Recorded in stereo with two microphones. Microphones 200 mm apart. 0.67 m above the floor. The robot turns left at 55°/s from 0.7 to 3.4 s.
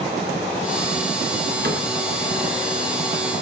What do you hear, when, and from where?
1.6 s a cupboard door: 55° right (ahead or behind), 4 m; by 1.8 s 45° right (ahead or behind), 4 m